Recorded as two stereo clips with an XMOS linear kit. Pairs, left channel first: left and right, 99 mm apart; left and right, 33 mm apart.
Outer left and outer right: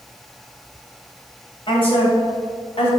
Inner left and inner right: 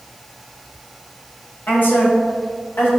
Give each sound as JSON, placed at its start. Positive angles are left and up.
{"t": 1.7, "sound": "a woman speaking", "side_deg": 60, "distance_m": 2.5}